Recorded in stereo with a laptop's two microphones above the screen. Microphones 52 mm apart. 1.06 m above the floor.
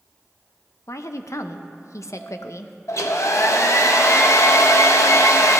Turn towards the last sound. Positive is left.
turn(degrees=75)  # may be behind; listen again after turning